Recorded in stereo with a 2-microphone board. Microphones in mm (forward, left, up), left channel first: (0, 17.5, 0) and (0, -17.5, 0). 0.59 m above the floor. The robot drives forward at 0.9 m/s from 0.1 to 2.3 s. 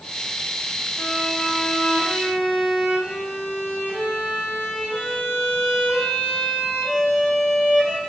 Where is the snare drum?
No snare drum in this recording.